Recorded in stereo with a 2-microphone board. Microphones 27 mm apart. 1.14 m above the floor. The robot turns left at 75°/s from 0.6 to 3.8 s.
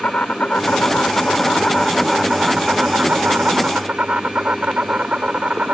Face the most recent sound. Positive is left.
turn(degrees=-120)